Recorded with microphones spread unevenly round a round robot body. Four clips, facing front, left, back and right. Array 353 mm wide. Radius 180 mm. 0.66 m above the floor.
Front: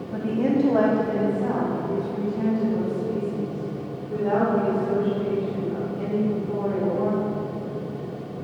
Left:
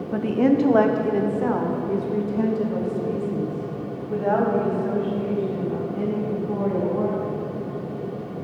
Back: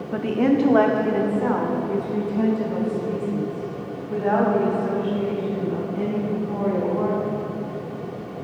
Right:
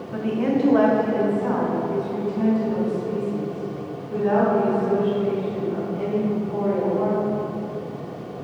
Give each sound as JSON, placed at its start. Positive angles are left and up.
{"t": 0.1, "sound": "a woman speaking", "azimuth_deg": 140, "distance_m": 0.9}